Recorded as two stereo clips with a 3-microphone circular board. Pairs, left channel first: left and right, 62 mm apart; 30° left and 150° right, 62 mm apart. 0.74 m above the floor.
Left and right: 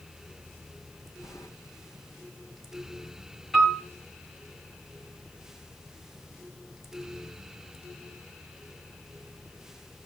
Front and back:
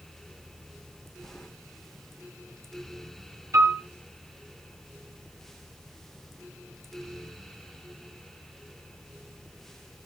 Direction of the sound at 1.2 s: 105° left.